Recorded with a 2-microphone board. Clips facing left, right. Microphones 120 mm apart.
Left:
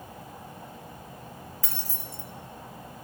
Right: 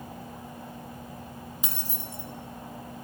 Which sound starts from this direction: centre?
Keys jangling, at 1.6 s.